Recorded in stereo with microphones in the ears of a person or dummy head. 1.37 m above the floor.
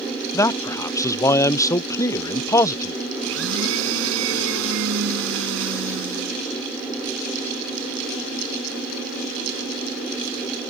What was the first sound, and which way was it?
A man speaking, 15° left (ahead or behind).